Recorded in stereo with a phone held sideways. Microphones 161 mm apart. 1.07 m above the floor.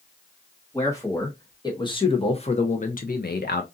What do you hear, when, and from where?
0.7 s a man speaking: 20° left (ahead or behind), 1.5 m; by 3.6 s 75° left (ahead or behind), 0.5 m